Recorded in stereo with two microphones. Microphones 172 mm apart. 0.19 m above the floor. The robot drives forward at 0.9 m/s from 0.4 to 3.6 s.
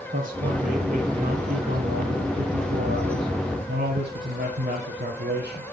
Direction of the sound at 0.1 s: 50° right (ahead or behind).